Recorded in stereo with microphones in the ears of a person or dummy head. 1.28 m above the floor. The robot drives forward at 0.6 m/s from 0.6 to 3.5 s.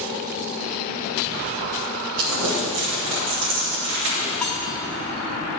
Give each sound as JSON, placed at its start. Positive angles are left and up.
{"t": 2.2, "sound": "crumpling", "side_deg": -75, "distance_m": 2.5}
{"t": 4.4, "sound": "cutlery clinking", "side_deg": 5, "distance_m": 1.4}